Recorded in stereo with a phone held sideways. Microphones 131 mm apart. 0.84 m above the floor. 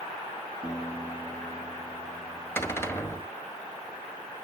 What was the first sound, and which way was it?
A guitar, 30° left (ahead or behind).